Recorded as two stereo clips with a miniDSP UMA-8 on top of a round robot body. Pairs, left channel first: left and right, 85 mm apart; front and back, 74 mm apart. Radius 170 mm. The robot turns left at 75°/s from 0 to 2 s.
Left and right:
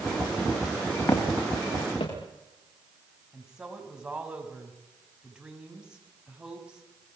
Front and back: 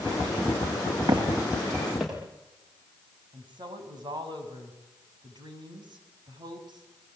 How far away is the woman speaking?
About 6.5 m.